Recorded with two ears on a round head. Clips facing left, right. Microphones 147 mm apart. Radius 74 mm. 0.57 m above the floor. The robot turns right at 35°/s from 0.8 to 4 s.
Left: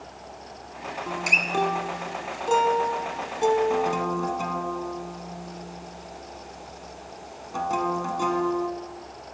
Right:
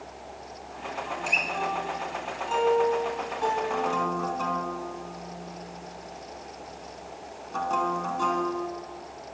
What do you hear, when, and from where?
1.1 s a guitar: 60° left (ahead or behind), 1.0 m; by 8.7 s 15° left (ahead or behind), 1.0 m